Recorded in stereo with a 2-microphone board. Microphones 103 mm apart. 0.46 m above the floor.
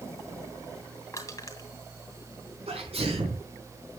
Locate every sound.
1.1 s crushing: 30° left (ahead or behind), 3 m
2.7 s a sneeze: 75° right (ahead or behind), 5.5 m